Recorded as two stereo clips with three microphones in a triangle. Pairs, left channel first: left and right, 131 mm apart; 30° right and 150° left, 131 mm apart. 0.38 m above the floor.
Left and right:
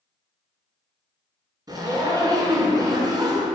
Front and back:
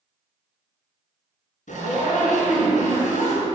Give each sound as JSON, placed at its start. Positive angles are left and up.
{"t": 1.7, "sound": "a zipper", "azimuth_deg": -30, "distance_m": 1.8}